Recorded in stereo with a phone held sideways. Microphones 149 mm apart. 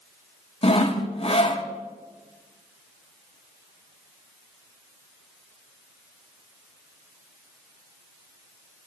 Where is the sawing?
45° left (ahead or behind), 1.2 m.